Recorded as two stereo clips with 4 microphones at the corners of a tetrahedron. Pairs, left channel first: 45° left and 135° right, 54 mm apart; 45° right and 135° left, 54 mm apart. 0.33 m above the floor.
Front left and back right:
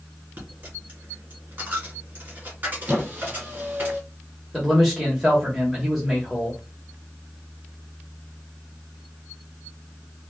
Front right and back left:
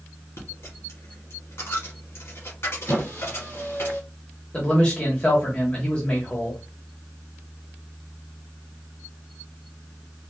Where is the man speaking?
55° right, 1.2 m.